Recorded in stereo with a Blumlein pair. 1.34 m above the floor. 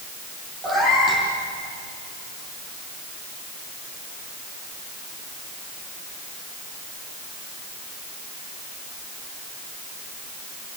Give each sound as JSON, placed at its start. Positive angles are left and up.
{"t": 0.6, "sound": "a cat meowing", "azimuth_deg": -20, "distance_m": 7.0}